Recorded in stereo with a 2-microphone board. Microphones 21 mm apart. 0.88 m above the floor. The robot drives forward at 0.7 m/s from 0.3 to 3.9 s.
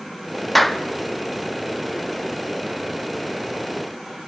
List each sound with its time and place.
0.6 s a clap: 5° left (ahead or behind), 1.0 m